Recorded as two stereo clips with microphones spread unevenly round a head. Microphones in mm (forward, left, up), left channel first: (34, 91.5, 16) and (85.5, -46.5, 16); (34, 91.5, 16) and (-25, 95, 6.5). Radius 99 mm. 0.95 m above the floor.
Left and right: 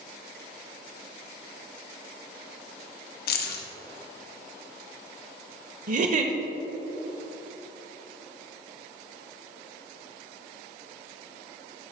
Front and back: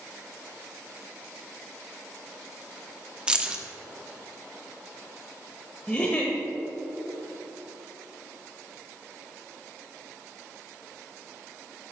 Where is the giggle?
65° right, 0.9 m.